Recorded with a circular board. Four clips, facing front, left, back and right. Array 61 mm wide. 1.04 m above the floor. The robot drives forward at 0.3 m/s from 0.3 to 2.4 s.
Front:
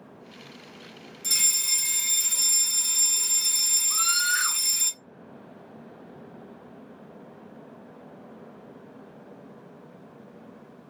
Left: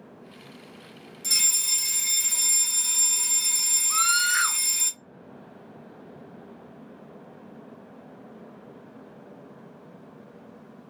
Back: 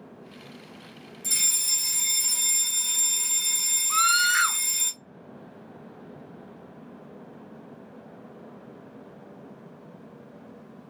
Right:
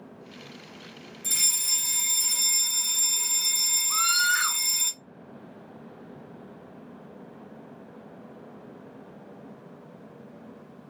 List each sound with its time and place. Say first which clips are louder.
1.2 s a fire alarm: left 2 dB, front 2 dB; 60° left, 2.5 m; by 4.9 s 70° left, 2.5 m
3.9 s a scream: left 1 dB, back 6 dB; 155° left, 1.0 m